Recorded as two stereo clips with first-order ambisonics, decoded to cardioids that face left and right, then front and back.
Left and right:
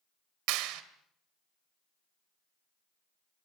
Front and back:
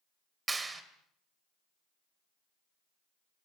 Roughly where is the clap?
Right.